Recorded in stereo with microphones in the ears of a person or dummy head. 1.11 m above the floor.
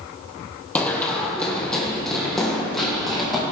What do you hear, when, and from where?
0.8 s running footsteps: 10° left (ahead or behind), 2 m; by 3.4 s centre (ahead or behind), 3.5 m